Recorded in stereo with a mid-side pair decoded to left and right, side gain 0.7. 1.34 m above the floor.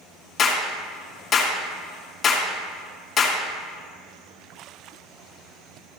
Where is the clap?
35° left, 2 m.